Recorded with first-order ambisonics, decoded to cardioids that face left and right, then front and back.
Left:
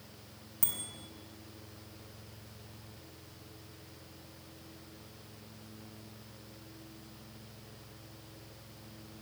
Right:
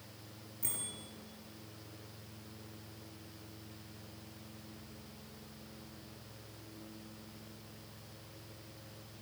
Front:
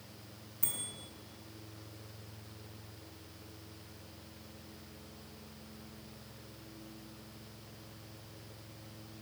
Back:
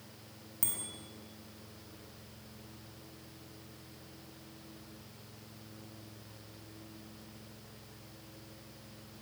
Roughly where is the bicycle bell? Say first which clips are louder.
Left 3 dB, back 2 dB; behind left.